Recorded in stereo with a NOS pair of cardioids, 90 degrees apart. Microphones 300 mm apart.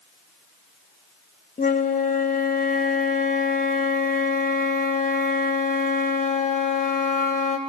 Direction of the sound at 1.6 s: 25° left.